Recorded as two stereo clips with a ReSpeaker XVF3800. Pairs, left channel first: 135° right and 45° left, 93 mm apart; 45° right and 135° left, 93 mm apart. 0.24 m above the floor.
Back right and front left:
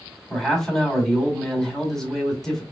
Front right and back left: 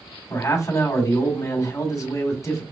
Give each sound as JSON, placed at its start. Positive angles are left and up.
{"t": 0.3, "sound": "a man speaking", "azimuth_deg": -55, "distance_m": 1.7}